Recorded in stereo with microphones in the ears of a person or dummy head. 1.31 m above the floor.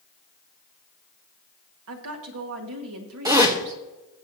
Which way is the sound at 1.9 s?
70° right (ahead or behind).